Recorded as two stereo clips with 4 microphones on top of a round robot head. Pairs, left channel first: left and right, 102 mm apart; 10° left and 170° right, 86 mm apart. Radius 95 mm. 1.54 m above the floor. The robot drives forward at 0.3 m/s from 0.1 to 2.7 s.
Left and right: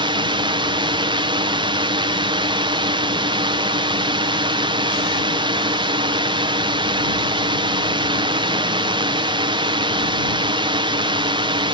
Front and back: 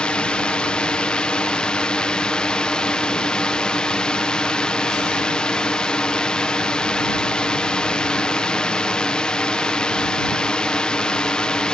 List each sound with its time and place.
0.0 s a drone: 70° right